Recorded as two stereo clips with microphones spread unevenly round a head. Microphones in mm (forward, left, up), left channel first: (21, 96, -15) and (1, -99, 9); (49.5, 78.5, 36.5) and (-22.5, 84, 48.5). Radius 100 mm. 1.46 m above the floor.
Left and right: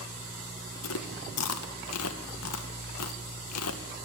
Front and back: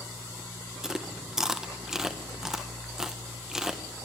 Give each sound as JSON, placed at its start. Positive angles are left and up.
{"t": 0.8, "sound": "chewing", "azimuth_deg": 90, "distance_m": 1.6}